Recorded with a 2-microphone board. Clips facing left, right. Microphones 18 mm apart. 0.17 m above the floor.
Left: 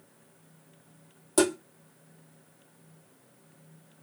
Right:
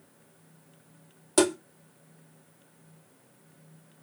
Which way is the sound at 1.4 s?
20° right (ahead or behind).